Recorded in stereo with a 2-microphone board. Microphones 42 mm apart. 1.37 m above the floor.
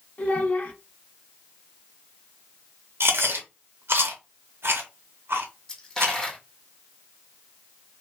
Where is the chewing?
70° right (ahead or behind), 0.8 m.